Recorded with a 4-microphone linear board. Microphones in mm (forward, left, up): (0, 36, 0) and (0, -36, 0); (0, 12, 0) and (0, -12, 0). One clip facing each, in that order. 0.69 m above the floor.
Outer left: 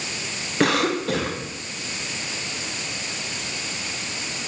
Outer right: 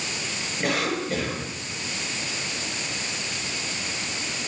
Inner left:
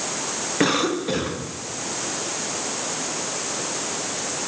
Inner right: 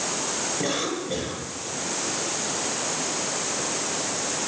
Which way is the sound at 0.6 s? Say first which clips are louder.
Outer left 6 dB, inner left 10 dB; 80° left.